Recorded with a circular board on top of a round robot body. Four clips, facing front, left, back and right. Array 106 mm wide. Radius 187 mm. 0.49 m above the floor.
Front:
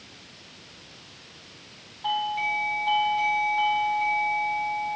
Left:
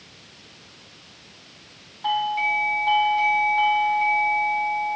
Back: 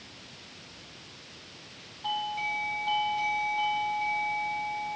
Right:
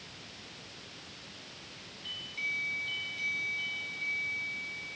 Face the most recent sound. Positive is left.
turn(degrees=75)